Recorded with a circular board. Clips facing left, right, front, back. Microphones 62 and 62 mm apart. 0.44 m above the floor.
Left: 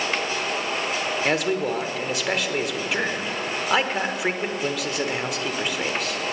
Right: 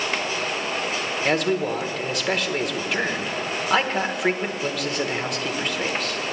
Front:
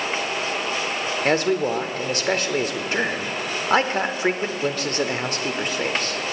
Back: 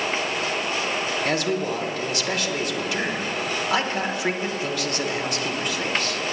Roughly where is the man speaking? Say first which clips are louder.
Right 2 dB, front 6 dB; ahead.